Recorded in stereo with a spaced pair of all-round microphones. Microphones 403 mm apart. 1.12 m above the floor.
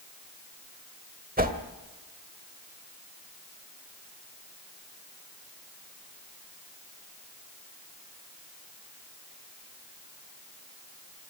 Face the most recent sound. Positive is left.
turn(degrees=-20)  # may be behind; listen again after turning